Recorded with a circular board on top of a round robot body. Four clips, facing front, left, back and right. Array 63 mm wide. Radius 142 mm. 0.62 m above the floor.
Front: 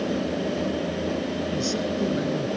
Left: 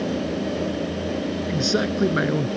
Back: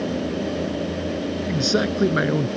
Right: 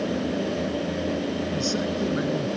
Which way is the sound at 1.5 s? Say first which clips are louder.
Left 3 dB, back 4 dB; 150° left.